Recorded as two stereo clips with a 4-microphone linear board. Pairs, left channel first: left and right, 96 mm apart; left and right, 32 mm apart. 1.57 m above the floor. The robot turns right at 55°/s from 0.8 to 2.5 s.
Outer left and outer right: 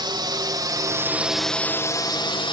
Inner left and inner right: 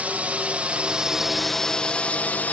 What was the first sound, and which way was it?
A drone, 50° right (ahead or behind).